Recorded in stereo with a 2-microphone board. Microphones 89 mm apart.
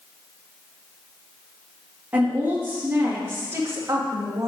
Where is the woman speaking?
20° right (ahead or behind), 2.5 m; by 4.5 s 45° right (ahead or behind), 1.0 m.